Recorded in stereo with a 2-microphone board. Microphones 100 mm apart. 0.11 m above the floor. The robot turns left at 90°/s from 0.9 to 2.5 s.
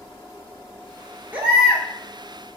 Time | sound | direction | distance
1.3 | a baby crying | 155° right | 0.7 m